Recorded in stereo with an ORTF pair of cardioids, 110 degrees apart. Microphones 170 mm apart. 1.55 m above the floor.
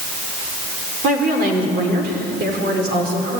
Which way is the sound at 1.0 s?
70° right.